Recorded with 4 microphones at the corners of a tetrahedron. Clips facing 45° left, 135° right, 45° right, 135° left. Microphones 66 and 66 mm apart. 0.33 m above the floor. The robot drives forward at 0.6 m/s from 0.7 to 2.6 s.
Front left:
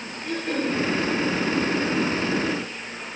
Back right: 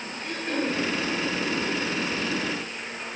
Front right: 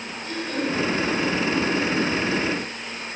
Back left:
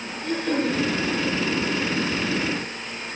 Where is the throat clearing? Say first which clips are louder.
Front left 2 dB, back left 4 dB; 130° left, 7 m.